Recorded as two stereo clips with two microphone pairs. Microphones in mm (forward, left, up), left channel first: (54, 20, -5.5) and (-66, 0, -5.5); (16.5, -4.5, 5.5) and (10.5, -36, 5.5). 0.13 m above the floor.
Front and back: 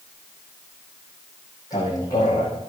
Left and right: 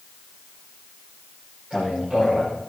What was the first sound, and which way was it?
A man speaking, 50° right.